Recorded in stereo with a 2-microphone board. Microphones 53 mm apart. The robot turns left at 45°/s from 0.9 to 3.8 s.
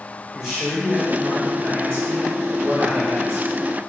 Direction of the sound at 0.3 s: 15° right.